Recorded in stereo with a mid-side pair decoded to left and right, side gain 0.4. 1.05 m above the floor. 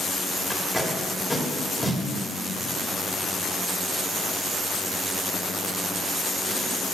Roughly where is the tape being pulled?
Ahead.